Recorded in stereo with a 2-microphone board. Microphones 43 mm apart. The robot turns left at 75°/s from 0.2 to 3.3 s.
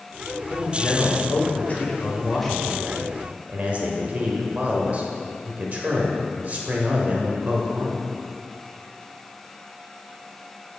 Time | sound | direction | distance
0.5 | a man speaking | 155° left | 1.0 m